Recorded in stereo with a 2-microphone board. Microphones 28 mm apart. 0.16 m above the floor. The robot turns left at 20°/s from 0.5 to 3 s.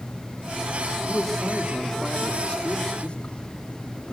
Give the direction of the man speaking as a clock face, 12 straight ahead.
6 o'clock.